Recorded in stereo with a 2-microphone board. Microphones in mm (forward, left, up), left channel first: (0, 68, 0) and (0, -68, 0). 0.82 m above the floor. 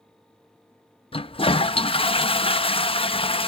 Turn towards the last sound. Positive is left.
turn(degrees=40)  # may be behind; listen again after turning